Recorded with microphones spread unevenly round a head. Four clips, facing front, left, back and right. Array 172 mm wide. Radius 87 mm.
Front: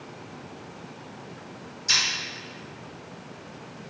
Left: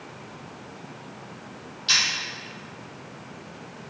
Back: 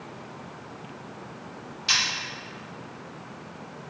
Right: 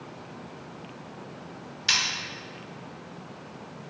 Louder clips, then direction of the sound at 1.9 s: Left 1 dB, back 1 dB; 160° right.